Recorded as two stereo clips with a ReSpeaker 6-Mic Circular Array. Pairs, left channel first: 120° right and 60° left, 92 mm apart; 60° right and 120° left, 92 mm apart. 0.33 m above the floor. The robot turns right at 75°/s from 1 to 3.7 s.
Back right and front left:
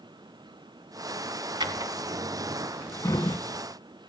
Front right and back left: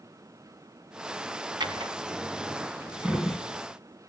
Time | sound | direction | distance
1.6 | a drawer | 85° left | 1.2 m